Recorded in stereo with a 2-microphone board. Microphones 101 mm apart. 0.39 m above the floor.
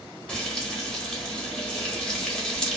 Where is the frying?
10° left (ahead or behind), 0.8 m.